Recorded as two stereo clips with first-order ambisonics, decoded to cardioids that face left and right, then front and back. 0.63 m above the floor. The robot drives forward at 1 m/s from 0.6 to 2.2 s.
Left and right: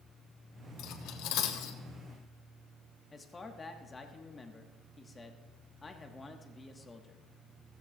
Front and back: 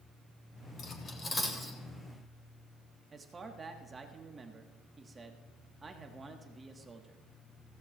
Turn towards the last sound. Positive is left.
turn(degrees=140)